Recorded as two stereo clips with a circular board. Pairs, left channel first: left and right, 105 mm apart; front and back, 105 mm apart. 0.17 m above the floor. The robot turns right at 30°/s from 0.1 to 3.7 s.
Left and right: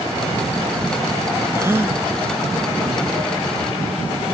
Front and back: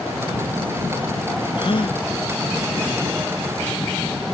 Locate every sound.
1.6 s a gasp: 30° right; by 2.0 s 15° right